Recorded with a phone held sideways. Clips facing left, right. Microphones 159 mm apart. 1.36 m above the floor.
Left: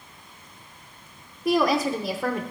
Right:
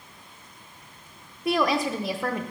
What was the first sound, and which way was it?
A woman speaking, centre (ahead or behind).